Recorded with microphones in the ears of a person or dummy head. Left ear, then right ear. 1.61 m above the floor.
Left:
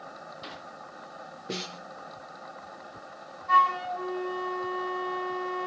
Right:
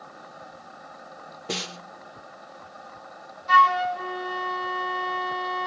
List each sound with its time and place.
1.5 s a snare drum: 50° right (ahead or behind), 1.4 m
3.5 s a flute: 30° right (ahead or behind), 1.4 m